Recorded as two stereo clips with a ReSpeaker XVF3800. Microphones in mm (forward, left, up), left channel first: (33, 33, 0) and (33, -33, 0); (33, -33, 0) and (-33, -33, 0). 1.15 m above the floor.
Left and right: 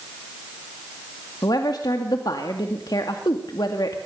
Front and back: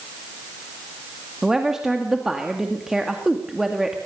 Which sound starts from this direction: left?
A woman speaking, at 1.4 s.